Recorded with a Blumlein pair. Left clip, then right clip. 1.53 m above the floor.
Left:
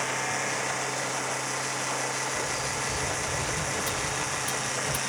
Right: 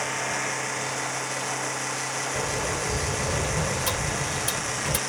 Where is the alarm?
No alarm in this recording.